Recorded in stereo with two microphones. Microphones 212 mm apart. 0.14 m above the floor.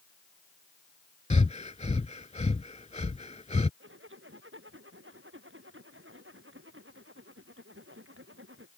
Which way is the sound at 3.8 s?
80° right.